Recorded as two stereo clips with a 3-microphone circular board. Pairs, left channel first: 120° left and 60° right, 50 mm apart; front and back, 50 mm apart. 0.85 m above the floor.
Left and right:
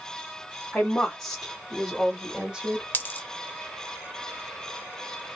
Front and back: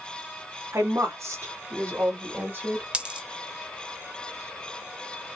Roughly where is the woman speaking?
Behind.